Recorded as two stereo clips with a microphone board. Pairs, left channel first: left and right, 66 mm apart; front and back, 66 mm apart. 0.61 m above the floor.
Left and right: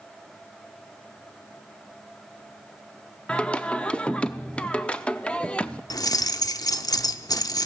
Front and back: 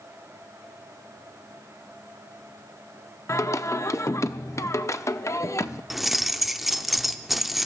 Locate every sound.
3.3 s singing: 20° left, 0.6 m
5.9 s keys jangling: 90° left, 0.6 m